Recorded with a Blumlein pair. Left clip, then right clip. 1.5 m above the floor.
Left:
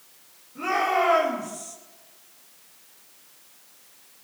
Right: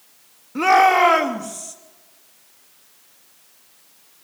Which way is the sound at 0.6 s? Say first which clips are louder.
Right 10 dB; 50° right.